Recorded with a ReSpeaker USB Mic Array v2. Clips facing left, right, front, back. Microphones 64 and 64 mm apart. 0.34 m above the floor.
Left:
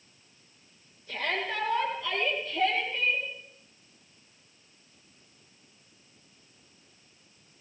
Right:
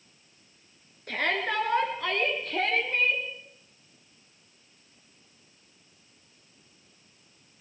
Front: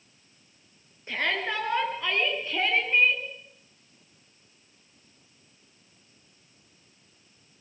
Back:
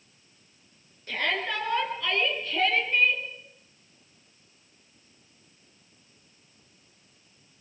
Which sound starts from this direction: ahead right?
A shout, at 1.1 s.